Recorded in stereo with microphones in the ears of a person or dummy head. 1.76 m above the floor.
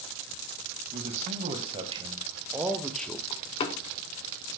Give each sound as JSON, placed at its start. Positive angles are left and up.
{"t": 0.9, "sound": "a man speaking", "side_deg": -40, "distance_m": 1.9}
{"t": 3.3, "sound": "a door slam", "side_deg": 35, "distance_m": 0.7}